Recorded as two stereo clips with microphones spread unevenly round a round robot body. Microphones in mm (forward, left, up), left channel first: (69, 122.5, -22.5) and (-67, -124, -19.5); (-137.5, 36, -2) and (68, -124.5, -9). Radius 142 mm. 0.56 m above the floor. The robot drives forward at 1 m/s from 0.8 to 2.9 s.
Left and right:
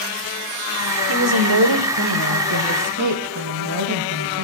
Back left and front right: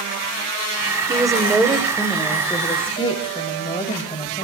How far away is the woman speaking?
About 1.7 m.